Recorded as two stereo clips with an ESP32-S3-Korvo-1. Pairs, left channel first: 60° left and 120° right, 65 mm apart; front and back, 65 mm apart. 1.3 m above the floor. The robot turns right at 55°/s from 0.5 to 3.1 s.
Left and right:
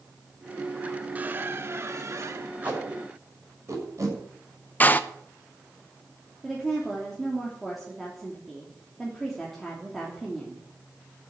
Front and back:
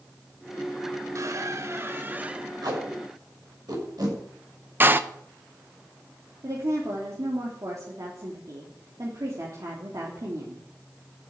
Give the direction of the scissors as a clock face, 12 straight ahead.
I don't hear scissors.